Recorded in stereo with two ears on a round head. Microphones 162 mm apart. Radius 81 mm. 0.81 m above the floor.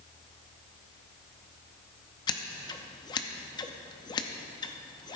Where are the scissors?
25° left (ahead or behind), 0.7 m.